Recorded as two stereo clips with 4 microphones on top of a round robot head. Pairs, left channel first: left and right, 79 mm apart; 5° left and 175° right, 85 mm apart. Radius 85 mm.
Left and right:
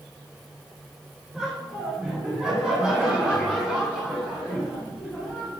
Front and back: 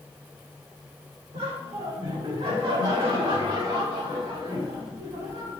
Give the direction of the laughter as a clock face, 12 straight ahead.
6 o'clock.